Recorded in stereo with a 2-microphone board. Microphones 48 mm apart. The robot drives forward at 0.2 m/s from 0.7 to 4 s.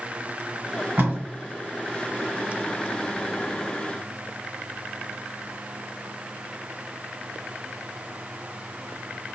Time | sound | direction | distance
1.0 | tape being pulled | 50° right (ahead or behind) | 1.2 m